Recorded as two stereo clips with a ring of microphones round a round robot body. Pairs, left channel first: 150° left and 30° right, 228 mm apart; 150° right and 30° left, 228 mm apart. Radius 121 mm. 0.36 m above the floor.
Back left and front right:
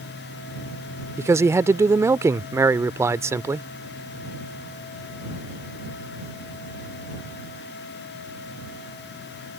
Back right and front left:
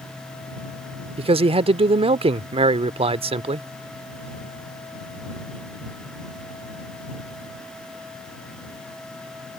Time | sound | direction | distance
1.2 | a man speaking | 30° left | ?